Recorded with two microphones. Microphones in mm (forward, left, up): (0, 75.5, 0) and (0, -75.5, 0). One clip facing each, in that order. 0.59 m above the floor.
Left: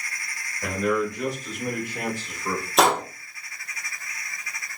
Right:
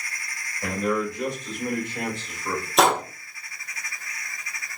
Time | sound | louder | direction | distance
0.6 | a man speaking | left 1 dB | 5° right (ahead or behind) | 1.8 m
2.8 | a gunshot | even | centre (ahead or behind) | 0.5 m